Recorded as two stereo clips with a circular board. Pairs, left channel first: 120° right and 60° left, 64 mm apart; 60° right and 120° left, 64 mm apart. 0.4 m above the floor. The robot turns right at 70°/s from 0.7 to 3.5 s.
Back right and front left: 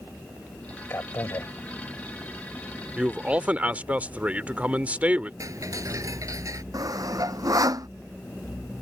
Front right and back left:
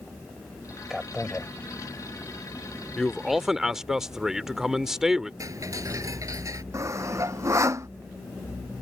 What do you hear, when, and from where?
0.9 s a man speaking: 160° right; by 1.5 s 115° right
3.0 s a man speaking: 10° left; by 5.3 s 50° left
5.4 s ticking: 90° left
6.7 s sawing: 80° left